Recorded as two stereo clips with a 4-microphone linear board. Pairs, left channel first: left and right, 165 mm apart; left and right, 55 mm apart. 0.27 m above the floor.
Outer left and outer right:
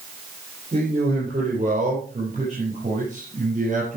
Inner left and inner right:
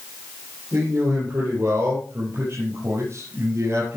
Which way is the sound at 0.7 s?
40° right (ahead or behind).